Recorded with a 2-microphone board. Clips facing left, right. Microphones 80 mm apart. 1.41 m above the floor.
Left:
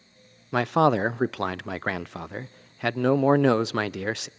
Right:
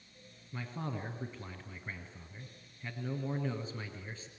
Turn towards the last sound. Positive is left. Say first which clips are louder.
# left 21 dB
turn(degrees=80)